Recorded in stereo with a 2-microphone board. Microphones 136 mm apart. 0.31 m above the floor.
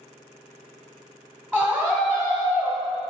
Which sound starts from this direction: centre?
A scream, at 1.5 s.